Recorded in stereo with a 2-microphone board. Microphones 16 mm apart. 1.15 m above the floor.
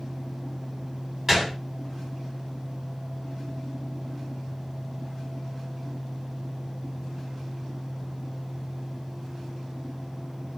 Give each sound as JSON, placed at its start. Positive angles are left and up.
{"t": 1.3, "sound": "a gunshot", "side_deg": -25, "distance_m": 1.1}